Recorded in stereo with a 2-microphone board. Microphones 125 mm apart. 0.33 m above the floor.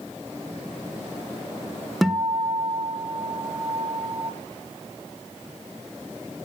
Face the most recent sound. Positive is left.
turn(degrees=0)  # may be behind; listen again after turning